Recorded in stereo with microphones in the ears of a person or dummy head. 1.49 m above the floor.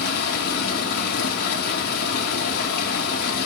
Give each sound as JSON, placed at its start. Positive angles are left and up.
{"t": 0.0, "sound": "running water", "side_deg": 55, "distance_m": 2.0}